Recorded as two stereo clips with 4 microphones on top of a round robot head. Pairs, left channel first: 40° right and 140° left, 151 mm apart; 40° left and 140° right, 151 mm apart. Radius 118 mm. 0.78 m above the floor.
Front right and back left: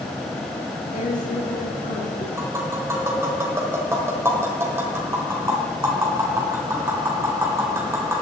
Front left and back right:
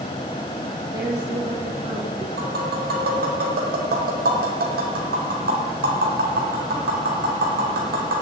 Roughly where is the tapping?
Behind right.